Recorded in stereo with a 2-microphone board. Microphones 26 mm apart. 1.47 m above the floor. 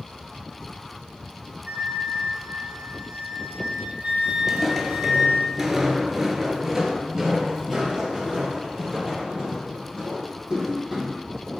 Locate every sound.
1.7 s a flute: 75° right (ahead or behind), 1.0 m
4.5 s footsteps: 10° right (ahead or behind), 1.6 m; by 11.1 s 20° right (ahead or behind), 4 m